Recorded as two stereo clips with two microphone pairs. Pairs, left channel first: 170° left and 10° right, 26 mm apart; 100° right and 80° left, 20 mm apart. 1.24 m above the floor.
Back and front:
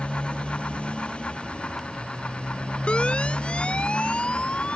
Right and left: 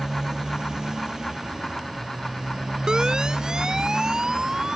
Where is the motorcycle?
130° left; by 4.8 s 125° left.